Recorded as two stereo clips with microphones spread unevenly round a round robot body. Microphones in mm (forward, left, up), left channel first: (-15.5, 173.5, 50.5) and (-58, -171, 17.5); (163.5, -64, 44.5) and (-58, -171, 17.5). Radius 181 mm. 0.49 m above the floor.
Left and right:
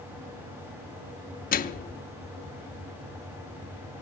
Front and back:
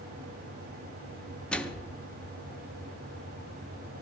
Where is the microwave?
120° left, 0.7 m.